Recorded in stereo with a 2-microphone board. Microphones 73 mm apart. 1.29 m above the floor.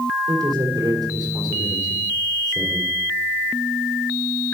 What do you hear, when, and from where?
0.3 s a man speaking: 75° right (ahead or behind), 3.5 m